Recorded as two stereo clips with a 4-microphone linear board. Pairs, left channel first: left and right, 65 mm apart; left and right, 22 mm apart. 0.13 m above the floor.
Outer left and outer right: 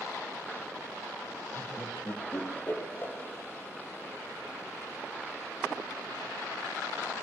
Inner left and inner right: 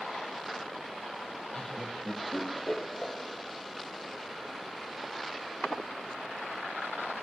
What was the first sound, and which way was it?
Laughter, 35° left (ahead or behind).